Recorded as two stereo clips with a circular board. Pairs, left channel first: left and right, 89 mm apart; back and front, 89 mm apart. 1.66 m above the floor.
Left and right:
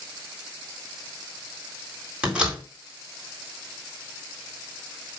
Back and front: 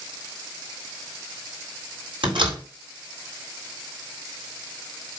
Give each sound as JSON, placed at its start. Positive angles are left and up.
{"t": 2.2, "sound": "a door slam", "azimuth_deg": -10, "distance_m": 3.5}